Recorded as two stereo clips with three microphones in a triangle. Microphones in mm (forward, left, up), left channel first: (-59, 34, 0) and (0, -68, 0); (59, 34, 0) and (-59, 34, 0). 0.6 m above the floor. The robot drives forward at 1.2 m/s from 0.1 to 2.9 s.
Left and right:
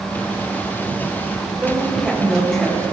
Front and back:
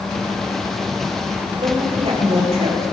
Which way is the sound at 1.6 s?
145° right.